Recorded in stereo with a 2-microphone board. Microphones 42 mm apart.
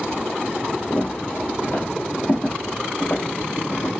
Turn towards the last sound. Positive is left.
turn(degrees=65)  # may be behind; listen again after turning